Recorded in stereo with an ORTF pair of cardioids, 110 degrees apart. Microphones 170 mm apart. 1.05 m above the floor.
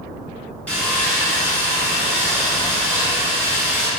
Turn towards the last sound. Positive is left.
turn(degrees=5)